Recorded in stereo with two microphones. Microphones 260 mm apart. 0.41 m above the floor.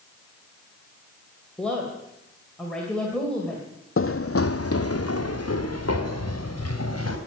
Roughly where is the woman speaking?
Centre.